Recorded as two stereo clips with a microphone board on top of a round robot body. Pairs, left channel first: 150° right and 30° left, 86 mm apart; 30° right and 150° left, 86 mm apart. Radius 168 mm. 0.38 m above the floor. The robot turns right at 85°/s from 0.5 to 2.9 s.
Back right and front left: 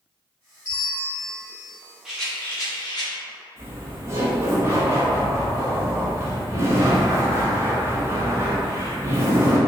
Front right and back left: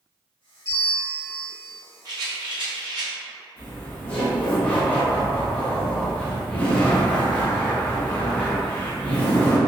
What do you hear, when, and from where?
0.7 s a bell: 85° right, 1.1 m; by 1.8 s 10° left, 1.1 m
2.0 s a rattle: 115° left, 0.9 m; by 3.1 s 175° right, 0.9 m
3.6 s laughter: 30° left, 1.1 m